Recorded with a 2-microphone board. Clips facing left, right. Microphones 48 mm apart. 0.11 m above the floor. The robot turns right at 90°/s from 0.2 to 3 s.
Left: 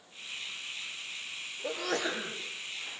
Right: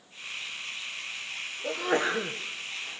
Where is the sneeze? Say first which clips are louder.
Right 5 dB; 175° left, 5 m; by 2.4 s 120° right, 5 m.